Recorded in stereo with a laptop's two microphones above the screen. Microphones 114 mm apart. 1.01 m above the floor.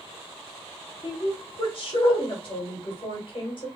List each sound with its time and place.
1.0 s a woman speaking: 45° left (ahead or behind), 1.2 m